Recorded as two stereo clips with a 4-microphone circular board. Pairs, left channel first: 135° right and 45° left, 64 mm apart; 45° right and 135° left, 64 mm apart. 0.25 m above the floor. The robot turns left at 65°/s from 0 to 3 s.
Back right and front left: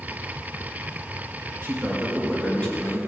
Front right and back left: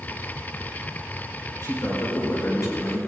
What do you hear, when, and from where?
1.6 s a man speaking: straight ahead, 4.5 m; by 3.0 s 90° right, 4.5 m